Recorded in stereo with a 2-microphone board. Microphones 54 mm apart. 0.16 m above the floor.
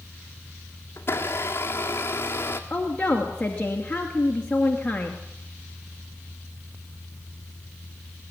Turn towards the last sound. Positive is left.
turn(degrees=25)  # may be behind; listen again after turning